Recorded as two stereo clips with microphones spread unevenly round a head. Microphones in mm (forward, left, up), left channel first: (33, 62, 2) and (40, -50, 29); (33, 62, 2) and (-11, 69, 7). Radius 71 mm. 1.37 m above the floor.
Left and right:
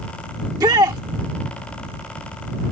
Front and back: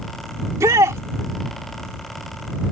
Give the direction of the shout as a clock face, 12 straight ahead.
5 o'clock.